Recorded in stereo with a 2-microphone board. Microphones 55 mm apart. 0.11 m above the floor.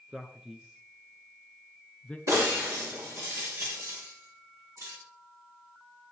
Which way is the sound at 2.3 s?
70° right (ahead or behind).